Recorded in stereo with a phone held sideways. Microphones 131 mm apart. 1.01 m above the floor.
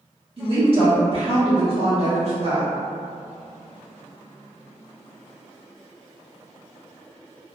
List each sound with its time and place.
0.4 s a woman speaking: 50° right (ahead or behind), 1.2 m